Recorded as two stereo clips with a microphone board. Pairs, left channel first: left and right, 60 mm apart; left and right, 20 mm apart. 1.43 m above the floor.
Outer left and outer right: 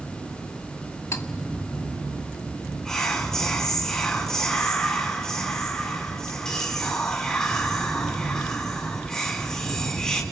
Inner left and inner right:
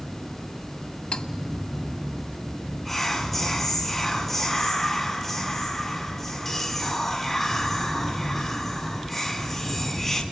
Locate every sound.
1.1 s cutlery clinking: 65° left (ahead or behind), 1.5 m
2.9 s whispering: 10° left (ahead or behind), 5.5 m